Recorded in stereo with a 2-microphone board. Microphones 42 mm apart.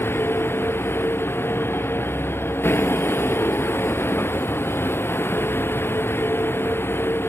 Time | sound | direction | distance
0.0 | a vehicle | 65° left (ahead or behind) | ?